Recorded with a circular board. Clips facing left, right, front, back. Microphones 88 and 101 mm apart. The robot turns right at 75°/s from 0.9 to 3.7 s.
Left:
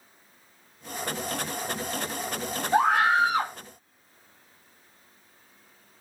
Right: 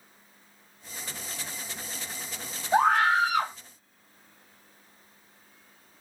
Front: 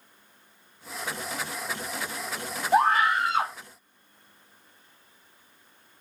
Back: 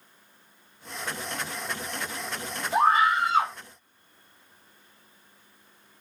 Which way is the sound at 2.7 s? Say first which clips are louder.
Even, even; 15° right.